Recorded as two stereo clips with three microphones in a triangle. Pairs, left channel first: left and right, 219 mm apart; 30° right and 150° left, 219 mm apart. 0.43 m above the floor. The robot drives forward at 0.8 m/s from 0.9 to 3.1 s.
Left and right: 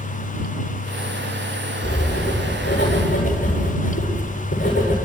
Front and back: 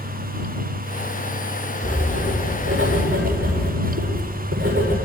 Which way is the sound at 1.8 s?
125° left.